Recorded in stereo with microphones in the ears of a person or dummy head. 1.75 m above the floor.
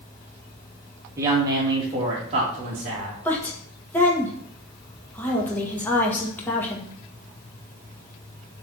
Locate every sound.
1.2 s a woman speaking: 15° right (ahead or behind), 2 m; by 3.1 s 50° right (ahead or behind), 2.5 m
3.2 s a woman speaking: 15° left (ahead or behind), 1.8 m